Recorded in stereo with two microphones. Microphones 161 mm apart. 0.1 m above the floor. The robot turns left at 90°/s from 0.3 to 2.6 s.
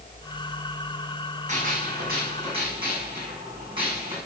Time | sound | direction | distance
1.5 | a gunshot | 50° right | 6.5 m